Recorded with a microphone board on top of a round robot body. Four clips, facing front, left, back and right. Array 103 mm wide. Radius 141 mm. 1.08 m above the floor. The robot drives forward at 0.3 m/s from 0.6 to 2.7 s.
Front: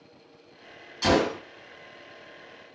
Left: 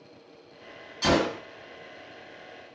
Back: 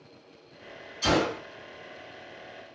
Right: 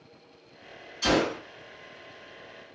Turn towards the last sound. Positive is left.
turn(degrees=70)